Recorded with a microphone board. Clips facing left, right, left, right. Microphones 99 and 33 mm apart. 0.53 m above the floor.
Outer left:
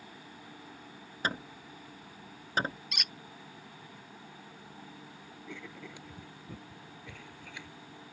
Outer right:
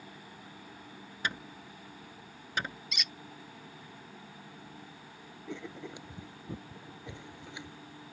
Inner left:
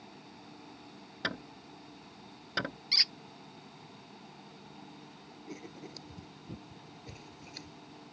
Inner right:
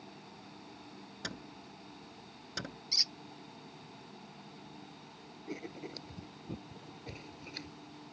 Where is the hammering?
35° left (ahead or behind).